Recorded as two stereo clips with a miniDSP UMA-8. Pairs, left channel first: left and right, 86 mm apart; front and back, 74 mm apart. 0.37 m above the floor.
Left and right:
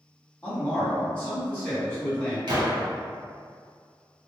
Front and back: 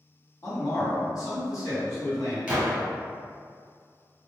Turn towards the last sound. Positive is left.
turn(degrees=-105)